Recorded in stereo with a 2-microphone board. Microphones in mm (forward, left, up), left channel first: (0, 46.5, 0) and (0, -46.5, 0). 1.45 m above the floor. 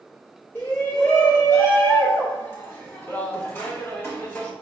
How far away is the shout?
About 3.5 m.